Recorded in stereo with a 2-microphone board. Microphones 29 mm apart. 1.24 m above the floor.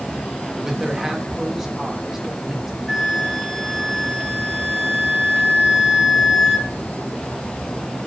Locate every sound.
0.6 s a man speaking: 15° right (ahead or behind), 3.5 m
2.9 s a flute: 10° left (ahead or behind), 2.5 m